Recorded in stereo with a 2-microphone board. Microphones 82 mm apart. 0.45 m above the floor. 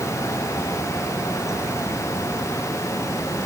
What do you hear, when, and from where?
Only background noise.